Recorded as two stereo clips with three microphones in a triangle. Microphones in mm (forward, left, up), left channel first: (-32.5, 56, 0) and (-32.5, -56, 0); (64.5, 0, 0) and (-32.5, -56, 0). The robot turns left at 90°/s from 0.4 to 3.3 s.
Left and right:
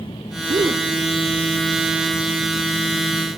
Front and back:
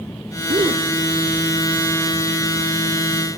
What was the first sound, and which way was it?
A gasp, 120° right.